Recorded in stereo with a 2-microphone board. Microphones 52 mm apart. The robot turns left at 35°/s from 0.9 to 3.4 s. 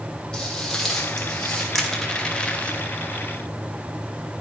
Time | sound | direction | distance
0.3 | footsteps | 15° left (ahead or behind) | 3 m
1.8 | crushing | centre (ahead or behind) | 0.9 m